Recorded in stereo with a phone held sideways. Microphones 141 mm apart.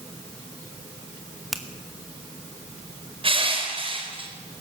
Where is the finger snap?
Centre (ahead or behind), 1.8 m.